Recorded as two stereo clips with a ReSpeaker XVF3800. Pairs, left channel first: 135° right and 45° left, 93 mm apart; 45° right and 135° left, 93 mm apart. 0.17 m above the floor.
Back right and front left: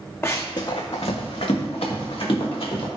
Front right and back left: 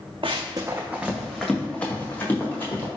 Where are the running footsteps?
160° left, 0.6 m; by 2.9 s 110° right, 1.8 m.